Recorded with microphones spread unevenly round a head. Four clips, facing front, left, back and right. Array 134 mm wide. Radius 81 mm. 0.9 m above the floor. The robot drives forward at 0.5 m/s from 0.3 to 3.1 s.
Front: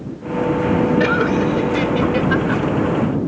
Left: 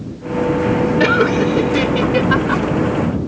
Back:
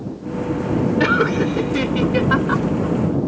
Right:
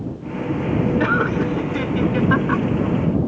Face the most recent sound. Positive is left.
turn(degrees=140)